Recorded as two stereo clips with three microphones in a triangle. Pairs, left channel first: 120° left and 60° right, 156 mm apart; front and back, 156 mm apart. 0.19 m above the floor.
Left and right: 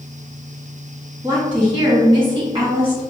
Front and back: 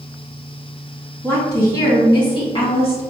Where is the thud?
I don't hear a thud.